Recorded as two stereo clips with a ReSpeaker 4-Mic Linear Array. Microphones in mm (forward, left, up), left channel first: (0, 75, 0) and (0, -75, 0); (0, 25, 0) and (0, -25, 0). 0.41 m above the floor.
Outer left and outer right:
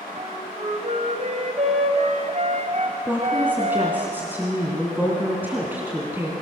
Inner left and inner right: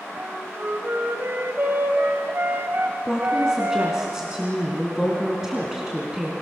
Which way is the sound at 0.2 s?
50° right (ahead or behind).